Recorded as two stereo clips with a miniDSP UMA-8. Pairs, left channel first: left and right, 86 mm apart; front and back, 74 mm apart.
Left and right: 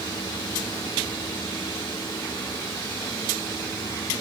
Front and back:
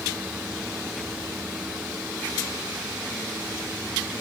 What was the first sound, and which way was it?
Only background noise.